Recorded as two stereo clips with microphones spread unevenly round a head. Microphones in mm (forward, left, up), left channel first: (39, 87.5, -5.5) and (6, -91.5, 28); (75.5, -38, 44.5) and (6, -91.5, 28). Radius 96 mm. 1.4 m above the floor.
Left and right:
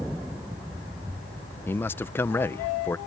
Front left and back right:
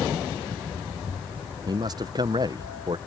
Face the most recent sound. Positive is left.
turn(degrees=160)